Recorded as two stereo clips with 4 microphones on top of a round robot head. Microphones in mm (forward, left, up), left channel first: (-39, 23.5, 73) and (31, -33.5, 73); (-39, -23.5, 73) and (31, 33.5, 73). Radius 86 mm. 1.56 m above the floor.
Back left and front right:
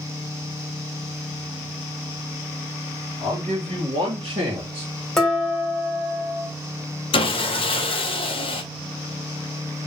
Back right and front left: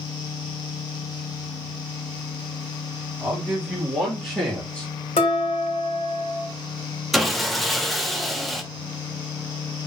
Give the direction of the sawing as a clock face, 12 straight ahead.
8 o'clock.